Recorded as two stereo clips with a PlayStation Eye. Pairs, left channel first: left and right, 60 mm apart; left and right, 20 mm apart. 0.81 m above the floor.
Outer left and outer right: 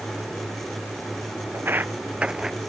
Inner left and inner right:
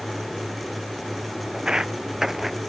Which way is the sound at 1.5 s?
40° right (ahead or behind).